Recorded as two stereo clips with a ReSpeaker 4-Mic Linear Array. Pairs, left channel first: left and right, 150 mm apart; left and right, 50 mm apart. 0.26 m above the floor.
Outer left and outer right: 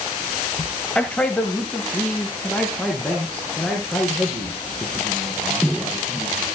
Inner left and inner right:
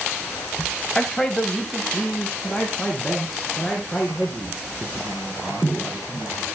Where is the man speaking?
10° left (ahead or behind), 0.9 m; by 6.5 s 5° left (ahead or behind), 5 m.